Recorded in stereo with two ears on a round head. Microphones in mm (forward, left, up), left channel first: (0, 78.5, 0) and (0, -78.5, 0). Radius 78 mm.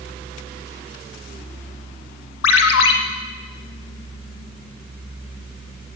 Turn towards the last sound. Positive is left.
turn(degrees=80)